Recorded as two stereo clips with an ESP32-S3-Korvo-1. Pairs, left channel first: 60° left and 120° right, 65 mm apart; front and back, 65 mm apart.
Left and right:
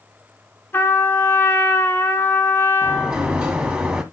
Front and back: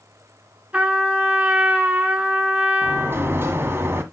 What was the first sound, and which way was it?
A trumpet, 110° left.